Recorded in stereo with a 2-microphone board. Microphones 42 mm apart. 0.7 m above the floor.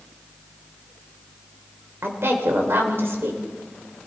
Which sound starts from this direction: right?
A woman speaking, at 2.0 s.